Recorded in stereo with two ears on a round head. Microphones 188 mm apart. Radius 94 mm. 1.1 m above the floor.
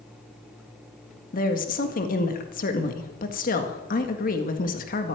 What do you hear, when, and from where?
1.3 s a woman speaking: 40° left (ahead or behind), 1.8 m